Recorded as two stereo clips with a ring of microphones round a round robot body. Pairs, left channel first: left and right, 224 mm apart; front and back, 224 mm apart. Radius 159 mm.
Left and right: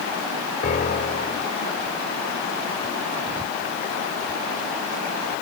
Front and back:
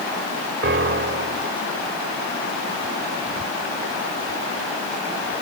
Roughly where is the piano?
Behind left.